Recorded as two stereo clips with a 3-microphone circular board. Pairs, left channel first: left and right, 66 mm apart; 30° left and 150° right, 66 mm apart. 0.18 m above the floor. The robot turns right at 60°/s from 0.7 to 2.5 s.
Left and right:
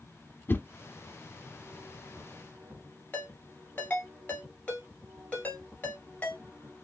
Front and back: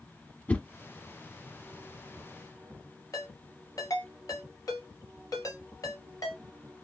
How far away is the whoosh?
About 0.6 m.